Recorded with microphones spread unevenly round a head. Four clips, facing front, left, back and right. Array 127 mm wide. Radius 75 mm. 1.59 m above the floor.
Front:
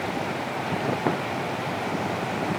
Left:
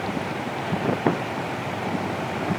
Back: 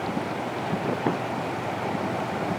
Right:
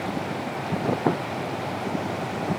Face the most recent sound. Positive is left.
No sound to turn to.